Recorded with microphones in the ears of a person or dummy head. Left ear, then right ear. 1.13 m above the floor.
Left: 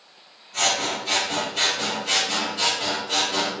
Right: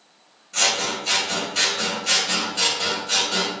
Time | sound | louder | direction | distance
0.5 | scissors | right 1 dB | 45° right (ahead or behind) | 0.7 m